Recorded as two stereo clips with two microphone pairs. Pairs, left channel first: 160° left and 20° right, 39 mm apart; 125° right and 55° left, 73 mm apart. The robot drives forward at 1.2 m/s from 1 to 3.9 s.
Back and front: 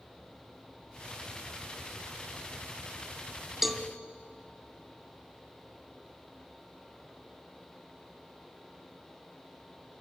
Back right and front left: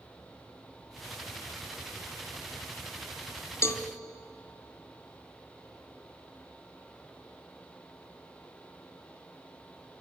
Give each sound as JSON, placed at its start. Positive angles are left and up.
{"t": 3.6, "sound": "a cowbell", "azimuth_deg": -105, "distance_m": 0.8}